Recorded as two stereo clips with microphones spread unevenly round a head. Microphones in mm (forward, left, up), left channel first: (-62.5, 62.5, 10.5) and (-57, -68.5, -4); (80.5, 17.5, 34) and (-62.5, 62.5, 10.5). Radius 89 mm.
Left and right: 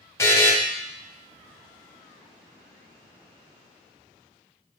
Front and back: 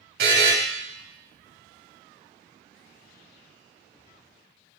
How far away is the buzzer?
About 1.3 m.